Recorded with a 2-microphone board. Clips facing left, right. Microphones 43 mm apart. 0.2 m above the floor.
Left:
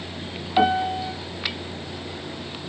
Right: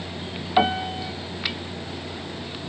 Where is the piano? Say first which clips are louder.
Left 2 dB; 15° right (ahead or behind), 1.7 m.